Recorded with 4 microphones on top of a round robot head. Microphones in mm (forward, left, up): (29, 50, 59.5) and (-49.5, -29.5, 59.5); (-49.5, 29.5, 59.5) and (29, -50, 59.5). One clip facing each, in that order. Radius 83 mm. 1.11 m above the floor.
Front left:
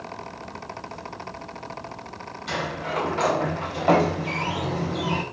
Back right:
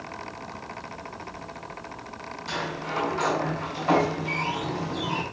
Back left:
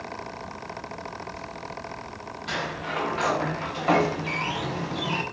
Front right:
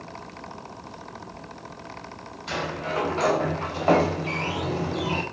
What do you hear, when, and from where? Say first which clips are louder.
2.5 s a sliding door: front left 3 dB, front right 2 dB; 10° left, 4 m